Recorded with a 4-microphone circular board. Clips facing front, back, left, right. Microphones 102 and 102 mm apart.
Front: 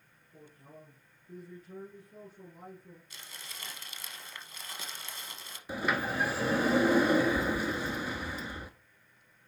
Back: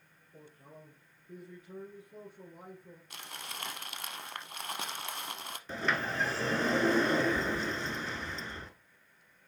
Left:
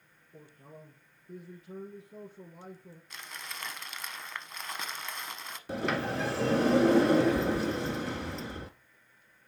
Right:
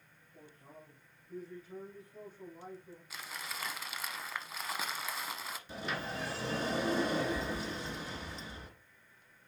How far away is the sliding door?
About 0.7 m.